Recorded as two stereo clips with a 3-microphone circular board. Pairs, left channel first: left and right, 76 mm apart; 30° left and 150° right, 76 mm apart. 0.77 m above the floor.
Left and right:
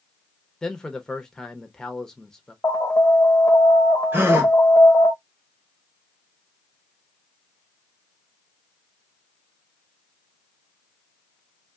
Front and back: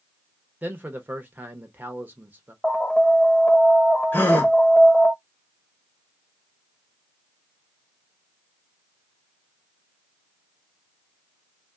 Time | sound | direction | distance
0.6 | a man speaking | 165° left | 0.6 m
2.6 | an alarm | 95° left | 1.3 m
4.1 | a gasp | 35° right | 0.9 m